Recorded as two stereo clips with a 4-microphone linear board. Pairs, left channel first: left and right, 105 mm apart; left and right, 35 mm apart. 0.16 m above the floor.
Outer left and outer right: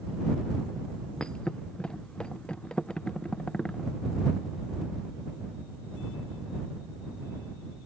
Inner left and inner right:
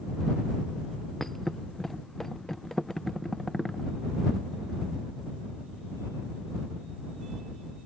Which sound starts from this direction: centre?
A thud, at 1.2 s.